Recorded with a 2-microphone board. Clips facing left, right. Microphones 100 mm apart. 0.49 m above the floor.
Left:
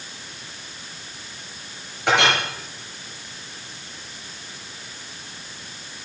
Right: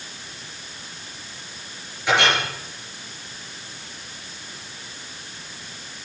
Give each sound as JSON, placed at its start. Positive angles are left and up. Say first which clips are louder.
{"t": 2.1, "sound": "a clink", "louder": "left 1 dB", "side_deg": 60, "distance_m": 6.0}